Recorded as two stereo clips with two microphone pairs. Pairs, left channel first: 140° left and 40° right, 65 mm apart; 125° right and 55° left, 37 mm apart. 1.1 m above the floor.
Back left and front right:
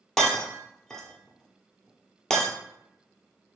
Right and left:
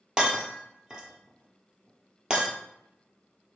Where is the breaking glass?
65° left, 1.1 m.